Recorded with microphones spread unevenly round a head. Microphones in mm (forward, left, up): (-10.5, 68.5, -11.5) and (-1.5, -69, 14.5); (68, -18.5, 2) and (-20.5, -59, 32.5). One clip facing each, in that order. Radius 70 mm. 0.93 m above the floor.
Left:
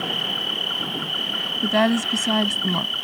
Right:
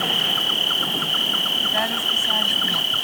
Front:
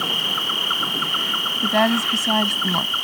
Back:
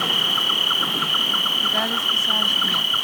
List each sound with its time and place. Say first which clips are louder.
0.0 s an insect: right 2 dB, back 1 dB; 85° right
1.6 s a woman speaking: left 9 dB, front 10 dB; 75° left